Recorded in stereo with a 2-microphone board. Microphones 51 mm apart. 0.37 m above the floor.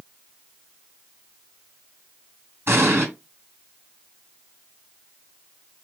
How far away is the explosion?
About 3 m.